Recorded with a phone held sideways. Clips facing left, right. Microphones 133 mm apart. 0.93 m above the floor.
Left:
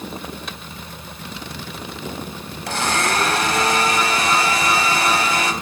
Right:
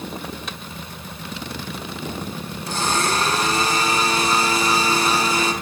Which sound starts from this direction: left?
A blender, at 2.7 s.